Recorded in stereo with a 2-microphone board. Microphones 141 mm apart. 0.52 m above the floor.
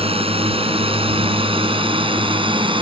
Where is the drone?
40° right (ahead or behind); by 2.8 s 35° right (ahead or behind).